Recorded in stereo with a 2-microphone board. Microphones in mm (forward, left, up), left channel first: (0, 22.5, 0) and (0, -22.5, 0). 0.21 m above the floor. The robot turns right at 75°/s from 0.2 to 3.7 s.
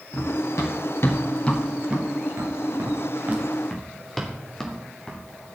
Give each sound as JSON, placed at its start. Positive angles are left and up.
{"t": 0.1, "sound": "running footsteps", "side_deg": 40, "distance_m": 3.5}